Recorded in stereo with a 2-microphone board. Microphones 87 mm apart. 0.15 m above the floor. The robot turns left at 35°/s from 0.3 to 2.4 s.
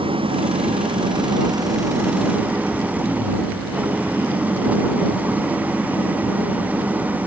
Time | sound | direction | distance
0.0 | an engine running | 90° right | ?